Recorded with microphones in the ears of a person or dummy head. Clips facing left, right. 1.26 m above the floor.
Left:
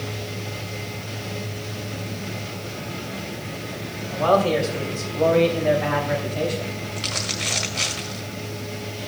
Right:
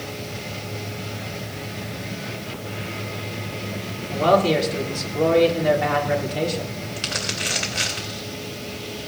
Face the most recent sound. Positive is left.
turn(degrees=-35)  # may be behind; listen again after turning